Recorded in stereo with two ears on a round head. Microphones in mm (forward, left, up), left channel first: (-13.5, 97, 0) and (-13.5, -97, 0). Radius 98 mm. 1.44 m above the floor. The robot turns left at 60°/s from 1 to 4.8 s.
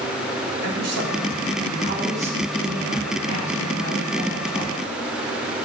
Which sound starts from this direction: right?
A man speaking, at 0.6 s.